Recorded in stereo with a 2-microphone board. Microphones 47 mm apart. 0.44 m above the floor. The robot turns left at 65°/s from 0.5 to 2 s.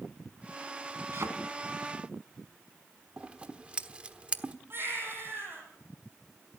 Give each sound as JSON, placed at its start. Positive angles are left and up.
{"t": 1.1, "sound": "a thud", "side_deg": -60, "distance_m": 2.0}
{"t": 3.2, "sound": "scissors", "side_deg": -25, "distance_m": 1.2}
{"t": 4.7, "sound": "a baby crying", "side_deg": -50, "distance_m": 7.5}